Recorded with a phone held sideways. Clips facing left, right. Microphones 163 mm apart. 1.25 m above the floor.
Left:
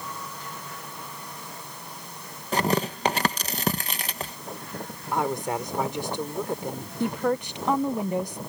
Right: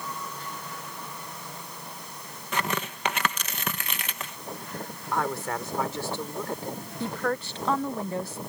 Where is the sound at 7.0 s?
15° left (ahead or behind).